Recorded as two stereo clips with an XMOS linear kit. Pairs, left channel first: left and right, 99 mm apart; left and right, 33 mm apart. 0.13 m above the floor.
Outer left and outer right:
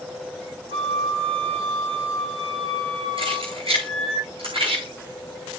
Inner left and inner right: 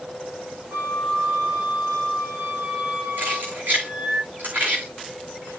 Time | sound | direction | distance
0.7 | a flute | 70° right (ahead or behind) | 3.5 m
3.2 | keys jangling | 65° right (ahead or behind) | 7.5 m